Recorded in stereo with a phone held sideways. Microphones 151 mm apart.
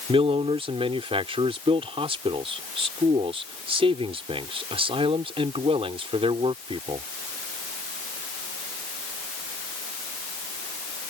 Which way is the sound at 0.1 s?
40° right (ahead or behind).